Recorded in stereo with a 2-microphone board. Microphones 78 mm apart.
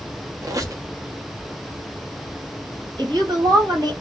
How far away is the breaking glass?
No breaking glass in this recording.